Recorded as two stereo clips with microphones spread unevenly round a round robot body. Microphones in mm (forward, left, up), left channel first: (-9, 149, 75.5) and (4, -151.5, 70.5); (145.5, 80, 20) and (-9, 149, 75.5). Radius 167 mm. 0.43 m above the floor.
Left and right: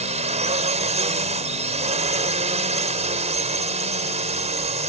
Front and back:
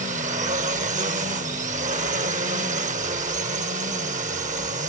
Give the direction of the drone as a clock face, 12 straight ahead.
5 o'clock.